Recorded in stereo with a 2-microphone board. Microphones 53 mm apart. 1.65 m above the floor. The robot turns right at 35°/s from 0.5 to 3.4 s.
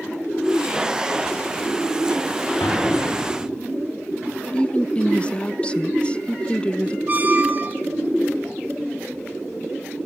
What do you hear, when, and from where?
2.6 s an explosion: 80° left, 3.5 m; by 3.5 s 75° left (ahead or behind), 3.5 m
4.5 s a woman speaking: 20° left (ahead or behind), 0.8 m
7.1 s a squeak: 30° right (ahead or behind), 0.8 m